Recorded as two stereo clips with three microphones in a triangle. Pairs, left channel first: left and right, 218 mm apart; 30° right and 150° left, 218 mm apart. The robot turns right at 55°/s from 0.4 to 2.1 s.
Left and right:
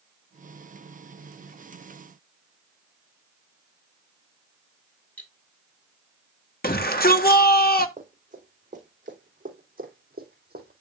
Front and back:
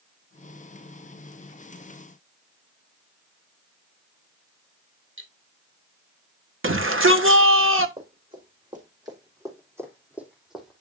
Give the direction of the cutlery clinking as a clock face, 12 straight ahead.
6 o'clock.